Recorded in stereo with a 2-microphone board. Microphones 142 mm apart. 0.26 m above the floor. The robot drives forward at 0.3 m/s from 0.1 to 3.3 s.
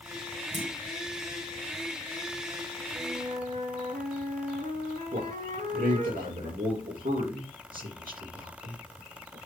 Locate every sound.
0.5 s a clunk: 60° right (ahead or behind), 4 m
3.0 s a flute: 60° right (ahead or behind), 2.5 m; by 6.1 s 65° right (ahead or behind), 2.5 m
5.1 s a man speaking: 80° right, 6.5 m